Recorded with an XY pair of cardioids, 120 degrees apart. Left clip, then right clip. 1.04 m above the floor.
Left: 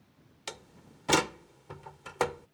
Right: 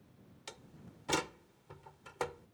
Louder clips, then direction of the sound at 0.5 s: Left 8 dB; 50° left.